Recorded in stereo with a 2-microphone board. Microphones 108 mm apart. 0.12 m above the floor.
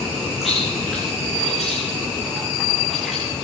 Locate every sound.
0.4 s chewing: centre (ahead or behind), 9 m